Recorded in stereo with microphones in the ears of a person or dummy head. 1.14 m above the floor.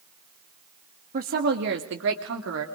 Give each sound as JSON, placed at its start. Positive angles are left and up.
{"t": 1.1, "sound": "a woman speaking", "side_deg": -45, "distance_m": 1.4}